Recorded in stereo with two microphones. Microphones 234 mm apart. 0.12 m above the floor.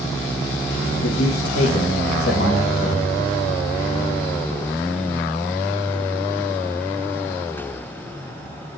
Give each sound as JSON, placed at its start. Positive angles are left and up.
{"t": 1.0, "sound": "a man speaking", "side_deg": 50, "distance_m": 3.0}